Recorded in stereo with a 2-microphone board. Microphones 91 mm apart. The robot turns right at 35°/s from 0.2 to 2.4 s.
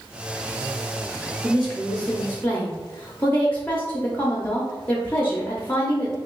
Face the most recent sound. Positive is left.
turn(degrees=30)